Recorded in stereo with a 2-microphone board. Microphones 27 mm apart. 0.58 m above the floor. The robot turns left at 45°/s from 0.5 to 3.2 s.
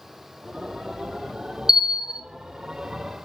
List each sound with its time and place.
1.7 s a bell: 25° right (ahead or behind), 0.5 m; by 2.2 s 40° right (ahead or behind), 0.5 m